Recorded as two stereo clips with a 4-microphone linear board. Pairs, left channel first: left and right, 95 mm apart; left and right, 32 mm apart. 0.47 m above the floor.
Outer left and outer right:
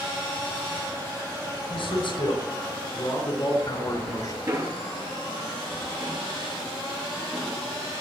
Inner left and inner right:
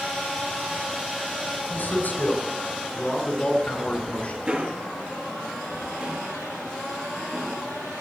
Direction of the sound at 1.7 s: 65° left (ahead or behind).